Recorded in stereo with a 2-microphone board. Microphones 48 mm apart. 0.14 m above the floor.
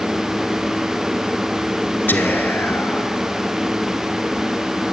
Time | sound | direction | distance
2.1 | whispering | 40° left (ahead or behind) | 2.5 m